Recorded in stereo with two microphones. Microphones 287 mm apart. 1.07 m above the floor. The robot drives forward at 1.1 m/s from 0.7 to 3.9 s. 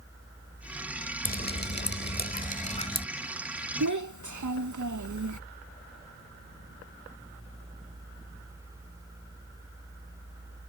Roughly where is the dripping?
Left.